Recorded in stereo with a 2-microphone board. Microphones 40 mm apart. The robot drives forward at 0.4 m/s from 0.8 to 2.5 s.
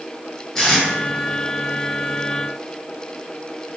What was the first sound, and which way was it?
Tape being pulled, 15° left (ahead or behind).